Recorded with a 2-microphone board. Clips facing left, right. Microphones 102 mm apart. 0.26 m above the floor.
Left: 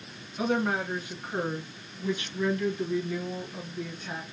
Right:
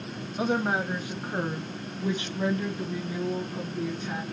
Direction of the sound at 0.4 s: 25° right (ahead or behind).